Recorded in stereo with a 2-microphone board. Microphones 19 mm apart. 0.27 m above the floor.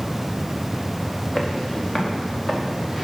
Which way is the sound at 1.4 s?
25° left (ahead or behind).